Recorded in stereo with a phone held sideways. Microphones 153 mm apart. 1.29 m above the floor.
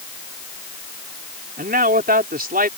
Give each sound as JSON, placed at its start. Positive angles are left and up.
{"t": 1.6, "sound": "a man speaking", "side_deg": -75}